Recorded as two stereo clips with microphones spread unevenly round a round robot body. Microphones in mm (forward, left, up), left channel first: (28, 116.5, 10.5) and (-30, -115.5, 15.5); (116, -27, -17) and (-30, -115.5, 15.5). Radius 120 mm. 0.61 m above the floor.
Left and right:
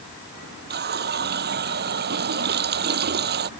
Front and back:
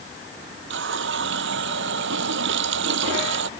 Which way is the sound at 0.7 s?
155° right.